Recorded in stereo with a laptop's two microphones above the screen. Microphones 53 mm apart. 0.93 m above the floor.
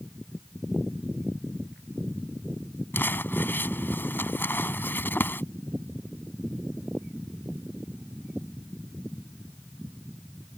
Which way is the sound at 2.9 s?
45° left (ahead or behind).